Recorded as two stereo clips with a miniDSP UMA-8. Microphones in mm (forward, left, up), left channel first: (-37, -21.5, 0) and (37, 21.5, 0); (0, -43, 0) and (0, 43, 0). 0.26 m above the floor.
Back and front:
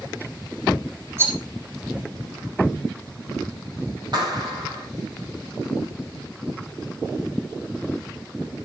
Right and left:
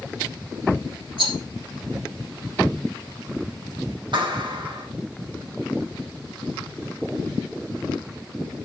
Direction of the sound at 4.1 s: 65° left.